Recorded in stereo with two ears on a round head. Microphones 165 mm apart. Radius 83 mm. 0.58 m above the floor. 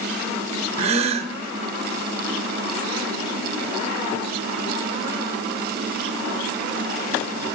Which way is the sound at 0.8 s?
35° right (ahead or behind).